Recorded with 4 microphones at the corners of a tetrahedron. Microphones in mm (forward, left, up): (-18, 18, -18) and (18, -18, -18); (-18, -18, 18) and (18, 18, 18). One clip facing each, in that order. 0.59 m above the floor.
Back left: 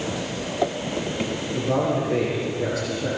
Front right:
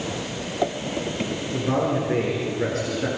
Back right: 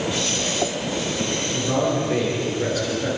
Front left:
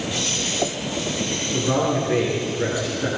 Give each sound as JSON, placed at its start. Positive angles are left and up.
{"t": 1.5, "sound": "a man speaking", "azimuth_deg": -20, "distance_m": 8.5}